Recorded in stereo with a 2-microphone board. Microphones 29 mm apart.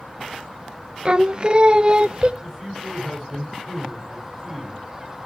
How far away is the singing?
About 0.7 m.